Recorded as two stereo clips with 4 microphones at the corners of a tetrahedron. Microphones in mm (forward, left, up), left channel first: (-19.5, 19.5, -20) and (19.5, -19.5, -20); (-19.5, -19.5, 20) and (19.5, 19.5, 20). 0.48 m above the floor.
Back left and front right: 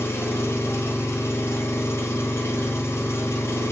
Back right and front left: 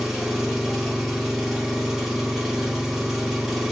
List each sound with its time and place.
0.0 s an engine running: 130° left, 0.9 m